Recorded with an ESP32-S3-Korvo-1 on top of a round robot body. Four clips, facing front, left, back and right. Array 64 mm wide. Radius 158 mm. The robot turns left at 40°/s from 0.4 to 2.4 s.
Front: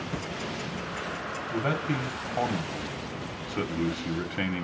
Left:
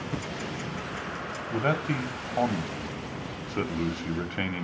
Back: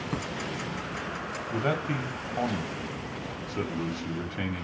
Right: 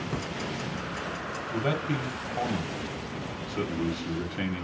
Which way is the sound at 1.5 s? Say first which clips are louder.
Left 2 dB, even; 105° left.